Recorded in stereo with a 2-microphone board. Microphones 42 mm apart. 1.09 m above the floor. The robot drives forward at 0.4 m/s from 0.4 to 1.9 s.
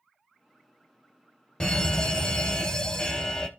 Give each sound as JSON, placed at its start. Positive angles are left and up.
{"t": 1.6, "sound": "a fire alarm", "side_deg": 20, "distance_m": 1.1}